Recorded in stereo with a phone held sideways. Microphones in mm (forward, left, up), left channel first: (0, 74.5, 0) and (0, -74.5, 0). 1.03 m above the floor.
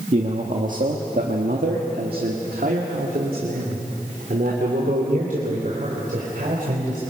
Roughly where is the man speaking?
Right.